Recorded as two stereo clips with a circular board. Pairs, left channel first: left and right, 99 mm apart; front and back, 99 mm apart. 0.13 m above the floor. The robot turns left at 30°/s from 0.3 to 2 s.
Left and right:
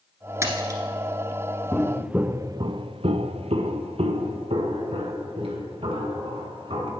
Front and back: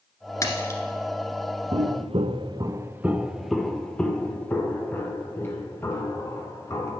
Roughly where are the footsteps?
Behind.